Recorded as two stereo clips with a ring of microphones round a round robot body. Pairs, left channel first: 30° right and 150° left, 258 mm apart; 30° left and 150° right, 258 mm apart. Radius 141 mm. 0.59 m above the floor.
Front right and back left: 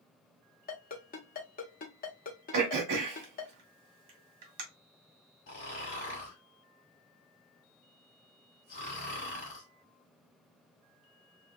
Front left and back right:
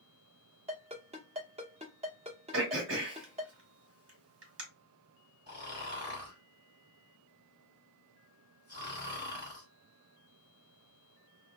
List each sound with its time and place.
0.7 s a ringtone: 85° right, 1.2 m
2.5 s throat clearing: 170° left, 1.2 m
5.5 s snoring: 80° right, 1.7 m